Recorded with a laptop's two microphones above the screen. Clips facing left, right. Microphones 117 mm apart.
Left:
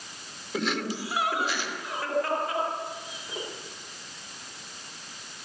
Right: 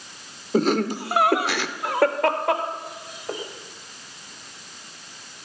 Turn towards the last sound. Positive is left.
turn(degrees=-45)  # may be behind; listen again after turning